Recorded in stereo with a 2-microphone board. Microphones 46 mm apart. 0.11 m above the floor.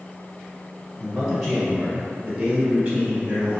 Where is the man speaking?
10° left (ahead or behind), 2.0 m; by 3.6 s 30° right (ahead or behind), 1.6 m.